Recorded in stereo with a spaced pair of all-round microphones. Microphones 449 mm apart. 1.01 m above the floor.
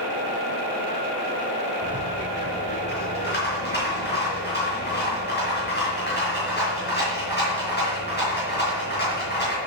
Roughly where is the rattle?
Left.